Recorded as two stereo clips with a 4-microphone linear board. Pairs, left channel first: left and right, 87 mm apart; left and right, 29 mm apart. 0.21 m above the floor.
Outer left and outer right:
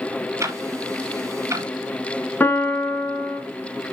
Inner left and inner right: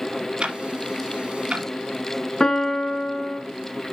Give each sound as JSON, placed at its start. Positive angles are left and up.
{"t": 0.4, "sound": "ticking", "side_deg": -35, "distance_m": 1.1}
{"t": 2.4, "sound": "a piano", "side_deg": 25, "distance_m": 0.8}